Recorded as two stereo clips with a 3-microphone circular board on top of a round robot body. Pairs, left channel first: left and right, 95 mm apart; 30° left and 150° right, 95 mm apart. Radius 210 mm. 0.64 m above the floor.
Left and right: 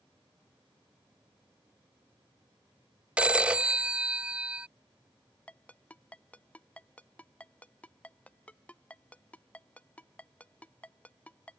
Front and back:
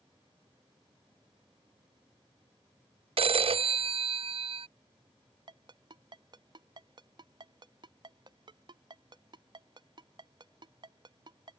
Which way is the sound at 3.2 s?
170° right.